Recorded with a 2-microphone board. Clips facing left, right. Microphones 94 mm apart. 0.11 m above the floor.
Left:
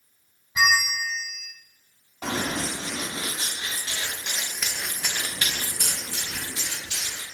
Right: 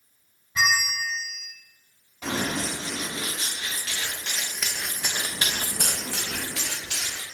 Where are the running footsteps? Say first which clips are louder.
Even; 35° left (ahead or behind), 1.8 m; by 7.2 s 80° right, 1.1 m.